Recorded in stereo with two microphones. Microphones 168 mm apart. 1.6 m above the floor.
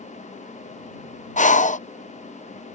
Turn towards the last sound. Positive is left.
turn(degrees=50)  # may be behind; listen again after turning